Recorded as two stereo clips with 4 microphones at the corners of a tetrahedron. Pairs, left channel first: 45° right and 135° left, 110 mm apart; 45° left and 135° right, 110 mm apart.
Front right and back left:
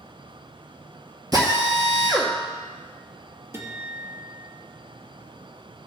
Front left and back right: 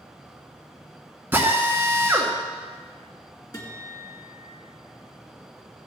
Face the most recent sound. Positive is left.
turn(degrees=80)